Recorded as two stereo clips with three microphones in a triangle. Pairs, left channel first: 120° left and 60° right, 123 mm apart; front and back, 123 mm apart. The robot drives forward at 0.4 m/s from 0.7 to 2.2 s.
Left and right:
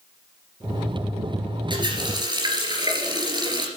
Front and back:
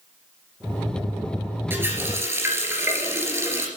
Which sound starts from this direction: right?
A running tap, at 1.7 s.